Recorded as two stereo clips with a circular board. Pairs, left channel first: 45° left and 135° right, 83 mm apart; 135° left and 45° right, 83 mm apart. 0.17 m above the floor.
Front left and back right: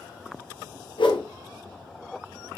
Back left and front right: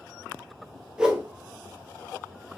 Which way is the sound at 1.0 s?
35° left.